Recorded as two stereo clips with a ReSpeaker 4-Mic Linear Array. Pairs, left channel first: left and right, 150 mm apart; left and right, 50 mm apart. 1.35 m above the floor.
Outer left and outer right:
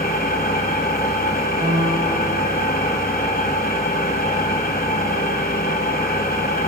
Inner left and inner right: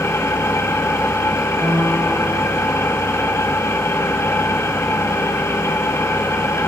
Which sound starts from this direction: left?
An engine running, at 0.0 s.